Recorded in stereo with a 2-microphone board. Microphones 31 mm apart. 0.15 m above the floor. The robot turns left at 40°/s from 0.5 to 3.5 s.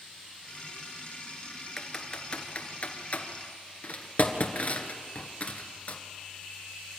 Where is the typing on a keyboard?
20° left (ahead or behind), 1.8 m; by 6.0 s 55° left (ahead or behind), 1.8 m.